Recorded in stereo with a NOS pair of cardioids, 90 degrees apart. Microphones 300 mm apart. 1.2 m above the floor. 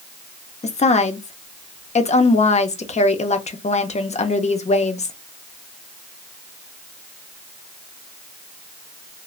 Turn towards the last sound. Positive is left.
turn(degrees=25)